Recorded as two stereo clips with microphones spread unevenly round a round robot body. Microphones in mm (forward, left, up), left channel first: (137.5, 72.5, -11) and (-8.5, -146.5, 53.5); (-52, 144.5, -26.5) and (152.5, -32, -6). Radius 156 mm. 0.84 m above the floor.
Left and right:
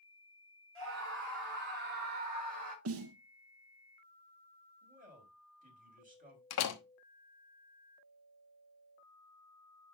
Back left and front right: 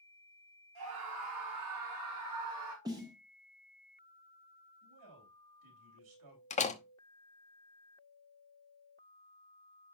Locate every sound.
0.8 s a scream: 80° right, 4 m; by 2.8 s 60° right, 4.5 m
2.9 s a snare drum: 115° right, 0.8 m
4.8 s a man speaking: 60° right, 4 m
6.5 s a door slam: 75° left, 1.0 m